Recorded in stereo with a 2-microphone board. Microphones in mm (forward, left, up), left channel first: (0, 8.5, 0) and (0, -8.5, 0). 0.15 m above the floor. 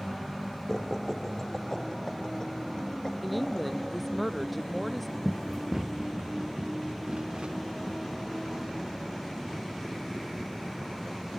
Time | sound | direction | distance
0.7 | laughter | 15° left (ahead or behind) | ?
3.2 | a woman speaking | centre (ahead or behind) | ?
5.2 | running footsteps | 20° left (ahead or behind) | ?